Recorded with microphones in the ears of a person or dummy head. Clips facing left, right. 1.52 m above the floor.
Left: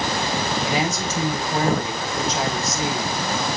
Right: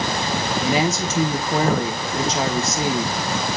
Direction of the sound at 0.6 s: 65° right (ahead or behind).